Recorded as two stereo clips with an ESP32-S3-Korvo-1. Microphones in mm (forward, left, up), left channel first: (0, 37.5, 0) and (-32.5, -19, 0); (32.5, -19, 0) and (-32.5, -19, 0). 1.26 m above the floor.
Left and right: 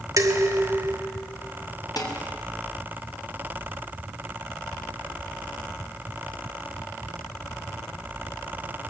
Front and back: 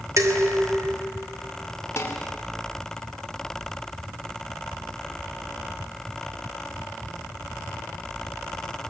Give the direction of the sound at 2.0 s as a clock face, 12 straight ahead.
10 o'clock.